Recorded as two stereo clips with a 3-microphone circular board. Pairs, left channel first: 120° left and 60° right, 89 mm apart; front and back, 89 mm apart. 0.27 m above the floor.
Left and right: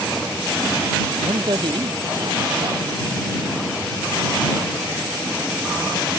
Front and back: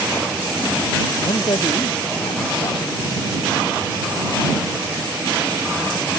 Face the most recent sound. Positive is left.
turn(degrees=-25)